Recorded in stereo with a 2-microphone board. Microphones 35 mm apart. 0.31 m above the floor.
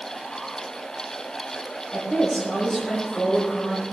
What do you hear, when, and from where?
1.9 s a woman speaking: 15° left (ahead or behind), 8 m